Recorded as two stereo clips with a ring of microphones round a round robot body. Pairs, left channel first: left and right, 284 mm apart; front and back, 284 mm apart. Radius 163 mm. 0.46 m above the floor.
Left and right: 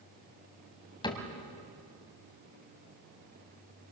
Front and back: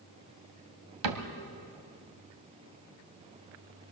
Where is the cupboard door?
165° left, 1.9 m.